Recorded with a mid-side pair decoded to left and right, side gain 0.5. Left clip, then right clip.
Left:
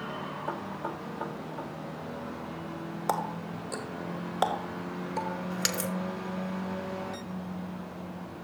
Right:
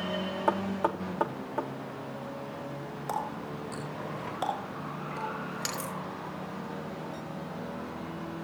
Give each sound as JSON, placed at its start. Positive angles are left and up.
{"t": 0.5, "sound": "knocking", "azimuth_deg": -70, "distance_m": 1.7}
{"t": 3.1, "sound": "a running tap", "azimuth_deg": 45, "distance_m": 3.5}